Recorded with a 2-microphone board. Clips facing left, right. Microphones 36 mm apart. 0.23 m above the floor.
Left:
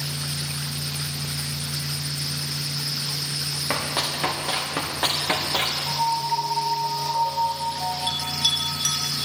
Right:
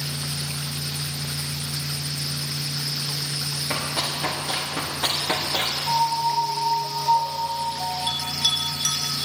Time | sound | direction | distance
3.7 | running footsteps | 30° left (ahead or behind) | 3.5 m
5.9 | a piano | 30° right (ahead or behind) | 1.6 m
8.1 | a bell | 20° left (ahead or behind) | 2 m